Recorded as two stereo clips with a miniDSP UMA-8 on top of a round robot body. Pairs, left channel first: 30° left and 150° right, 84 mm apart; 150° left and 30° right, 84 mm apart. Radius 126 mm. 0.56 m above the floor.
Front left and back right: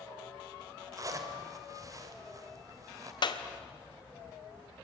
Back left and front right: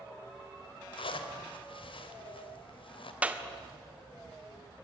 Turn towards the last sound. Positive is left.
turn(degrees=40)